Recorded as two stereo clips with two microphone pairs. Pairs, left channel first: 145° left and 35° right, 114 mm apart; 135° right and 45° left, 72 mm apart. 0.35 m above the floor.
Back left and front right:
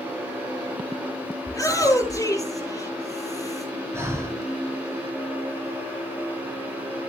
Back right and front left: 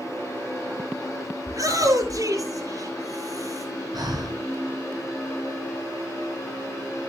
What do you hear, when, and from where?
1.5 s a shout: 85° left, 6.5 m
3.9 s breathing: 30° left, 3.5 m